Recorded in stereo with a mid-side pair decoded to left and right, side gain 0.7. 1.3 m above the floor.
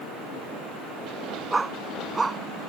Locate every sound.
1.5 s a dog barking: 15° right